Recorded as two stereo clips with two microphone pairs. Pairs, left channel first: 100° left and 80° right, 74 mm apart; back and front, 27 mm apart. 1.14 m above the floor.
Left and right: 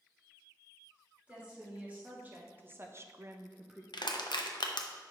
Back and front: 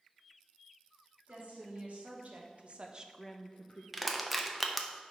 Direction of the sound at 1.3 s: 10° right.